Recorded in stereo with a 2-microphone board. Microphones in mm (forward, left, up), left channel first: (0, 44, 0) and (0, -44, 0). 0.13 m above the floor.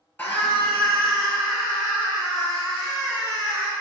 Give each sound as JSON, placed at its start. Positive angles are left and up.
{"t": 0.2, "sound": "a scream", "side_deg": 15, "distance_m": 2.0}